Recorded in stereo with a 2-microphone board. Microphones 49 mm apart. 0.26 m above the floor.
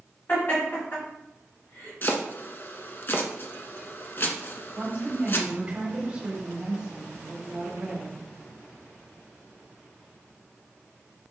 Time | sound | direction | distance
0.3 | laughter | 40° left (ahead or behind) | 1.8 m
2.0 | chopping | 45° left (ahead or behind) | 0.5 m
4.8 | a woman speaking | 25° right (ahead or behind) | 1.2 m